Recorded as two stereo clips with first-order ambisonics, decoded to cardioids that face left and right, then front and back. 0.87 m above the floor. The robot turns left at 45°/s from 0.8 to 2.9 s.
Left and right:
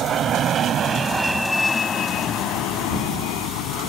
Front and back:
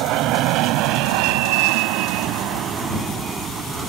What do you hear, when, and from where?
0.0 s an aircraft: 145° right; by 3.9 s 110° left